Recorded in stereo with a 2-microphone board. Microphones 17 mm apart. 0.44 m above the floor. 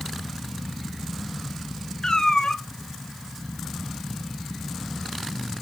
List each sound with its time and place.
2.0 s a cat meowing: 50° left (ahead or behind), 0.6 m